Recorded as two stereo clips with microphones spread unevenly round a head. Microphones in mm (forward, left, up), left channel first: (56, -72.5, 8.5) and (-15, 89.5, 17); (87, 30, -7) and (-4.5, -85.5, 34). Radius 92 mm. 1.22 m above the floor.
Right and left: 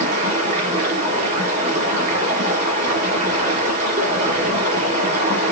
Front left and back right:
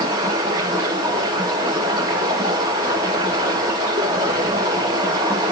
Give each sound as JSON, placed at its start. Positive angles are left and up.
{"t": 0.0, "sound": "running water", "azimuth_deg": 170, "distance_m": 4.5}